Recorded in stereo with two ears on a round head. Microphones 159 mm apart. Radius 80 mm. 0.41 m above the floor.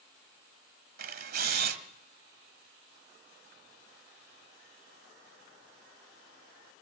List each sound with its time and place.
1.0 s a camera shutter: 55° right (ahead or behind), 1.5 m